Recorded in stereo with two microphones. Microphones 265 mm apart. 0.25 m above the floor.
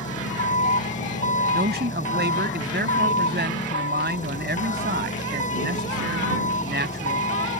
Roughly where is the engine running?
Left.